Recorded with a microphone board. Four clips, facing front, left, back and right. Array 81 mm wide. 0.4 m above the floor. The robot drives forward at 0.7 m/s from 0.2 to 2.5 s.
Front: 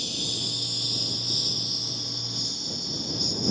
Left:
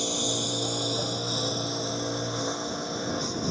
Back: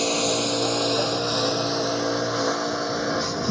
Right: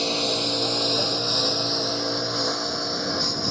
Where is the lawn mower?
155° right; by 3.5 s 165° right.